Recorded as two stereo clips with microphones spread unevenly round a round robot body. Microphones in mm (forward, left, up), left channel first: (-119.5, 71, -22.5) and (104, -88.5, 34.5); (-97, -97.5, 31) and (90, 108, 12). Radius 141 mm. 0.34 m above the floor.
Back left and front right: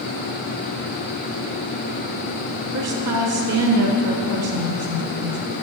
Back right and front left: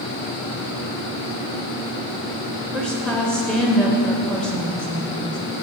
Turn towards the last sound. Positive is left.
turn(degrees=-40)